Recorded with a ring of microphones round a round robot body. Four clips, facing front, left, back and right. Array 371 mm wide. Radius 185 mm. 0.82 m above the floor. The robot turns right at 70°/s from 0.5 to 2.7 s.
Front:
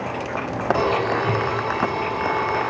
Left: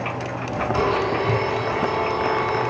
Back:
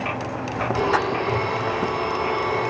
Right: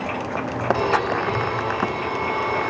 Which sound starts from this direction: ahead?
A blender, at 0.7 s.